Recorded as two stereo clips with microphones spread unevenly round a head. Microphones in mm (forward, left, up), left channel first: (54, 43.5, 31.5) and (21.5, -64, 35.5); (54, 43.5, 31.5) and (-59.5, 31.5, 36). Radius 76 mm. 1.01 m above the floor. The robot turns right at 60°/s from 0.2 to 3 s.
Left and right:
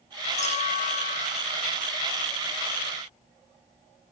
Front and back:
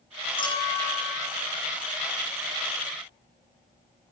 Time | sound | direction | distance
0.4 | a clink | 50° left | 9 m